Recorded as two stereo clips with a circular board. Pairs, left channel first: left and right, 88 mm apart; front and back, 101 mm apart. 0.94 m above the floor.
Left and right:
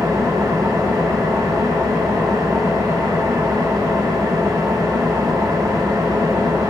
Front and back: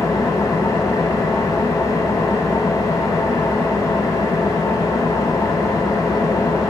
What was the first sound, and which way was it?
An engine running, 50° right.